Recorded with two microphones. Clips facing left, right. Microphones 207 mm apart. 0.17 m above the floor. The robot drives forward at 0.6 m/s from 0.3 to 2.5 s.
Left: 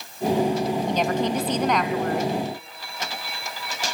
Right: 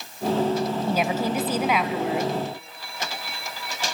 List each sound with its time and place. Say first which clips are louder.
0.9 s a woman speaking: left 1 dB; 5° right (ahead or behind), 1.5 m